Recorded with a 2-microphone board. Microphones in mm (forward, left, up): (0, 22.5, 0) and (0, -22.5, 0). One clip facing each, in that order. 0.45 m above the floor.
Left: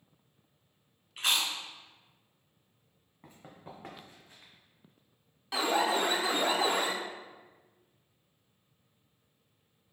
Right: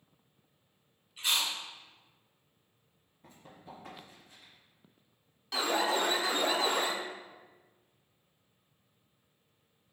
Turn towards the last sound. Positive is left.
turn(degrees=15)  # may be behind; listen again after turning